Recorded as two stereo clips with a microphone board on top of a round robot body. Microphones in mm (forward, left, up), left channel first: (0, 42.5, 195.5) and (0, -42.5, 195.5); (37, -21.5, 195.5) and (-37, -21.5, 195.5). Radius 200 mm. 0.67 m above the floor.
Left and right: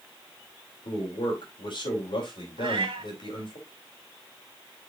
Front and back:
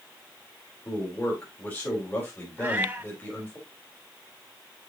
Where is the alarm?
No alarm in this recording.